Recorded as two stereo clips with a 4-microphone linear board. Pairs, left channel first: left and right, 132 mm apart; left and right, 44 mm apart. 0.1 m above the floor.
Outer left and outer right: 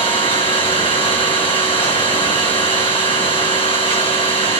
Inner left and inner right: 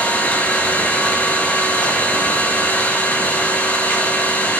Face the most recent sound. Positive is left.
turn(degrees=45)  # may be behind; listen again after turning